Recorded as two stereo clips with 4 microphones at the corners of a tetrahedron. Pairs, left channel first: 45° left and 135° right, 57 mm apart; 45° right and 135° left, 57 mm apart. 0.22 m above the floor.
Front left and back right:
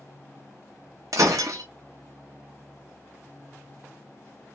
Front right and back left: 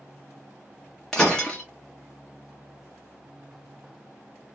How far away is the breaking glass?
About 0.6 m.